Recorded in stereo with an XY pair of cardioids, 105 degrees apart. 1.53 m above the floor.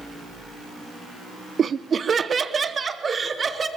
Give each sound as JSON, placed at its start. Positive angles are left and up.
{"t": 1.6, "sound": "laughter", "azimuth_deg": -40, "distance_m": 0.6}